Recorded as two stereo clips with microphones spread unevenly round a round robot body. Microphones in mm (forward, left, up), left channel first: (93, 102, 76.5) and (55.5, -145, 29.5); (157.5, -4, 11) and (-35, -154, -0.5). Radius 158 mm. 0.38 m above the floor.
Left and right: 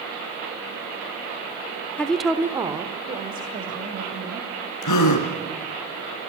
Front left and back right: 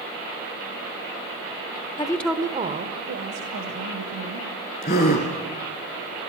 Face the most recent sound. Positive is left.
turn(degrees=105)